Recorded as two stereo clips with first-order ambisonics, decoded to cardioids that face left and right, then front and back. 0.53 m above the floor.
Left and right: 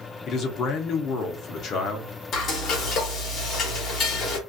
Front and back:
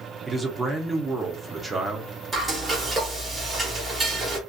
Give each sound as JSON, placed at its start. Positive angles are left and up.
{"t": 0.3, "sound": "a man speaking", "azimuth_deg": 100, "distance_m": 0.8}
{"t": 2.3, "sound": "frying", "azimuth_deg": 110, "distance_m": 1.2}